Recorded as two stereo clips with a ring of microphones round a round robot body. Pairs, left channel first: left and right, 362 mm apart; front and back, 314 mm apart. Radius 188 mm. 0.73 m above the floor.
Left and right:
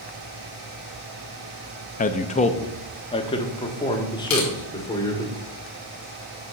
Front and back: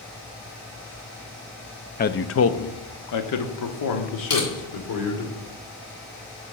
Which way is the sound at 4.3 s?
40° left.